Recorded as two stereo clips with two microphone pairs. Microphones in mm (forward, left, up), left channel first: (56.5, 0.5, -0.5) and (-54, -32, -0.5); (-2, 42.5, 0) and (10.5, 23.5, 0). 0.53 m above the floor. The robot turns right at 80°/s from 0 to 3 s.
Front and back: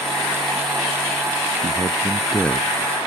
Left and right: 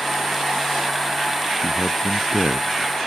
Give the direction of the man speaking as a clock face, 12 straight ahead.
4 o'clock.